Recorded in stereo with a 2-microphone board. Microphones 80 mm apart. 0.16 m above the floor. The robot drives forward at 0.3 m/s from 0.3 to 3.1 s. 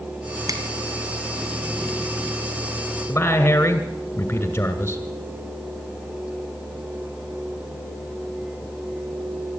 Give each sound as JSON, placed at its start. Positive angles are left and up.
{"t": 0.5, "sound": "a finger snap", "side_deg": -45, "distance_m": 1.4}
{"t": 3.1, "sound": "a man speaking", "side_deg": 25, "distance_m": 2.0}